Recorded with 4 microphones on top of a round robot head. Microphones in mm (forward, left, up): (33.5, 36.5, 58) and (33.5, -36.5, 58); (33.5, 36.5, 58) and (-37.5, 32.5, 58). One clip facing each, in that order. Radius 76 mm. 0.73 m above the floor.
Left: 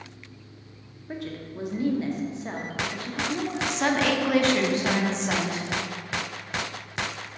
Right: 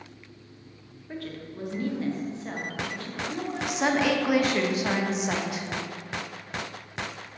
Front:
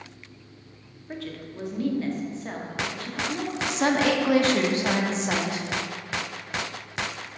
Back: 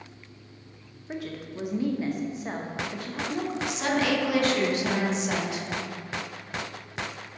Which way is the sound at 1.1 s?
130° left.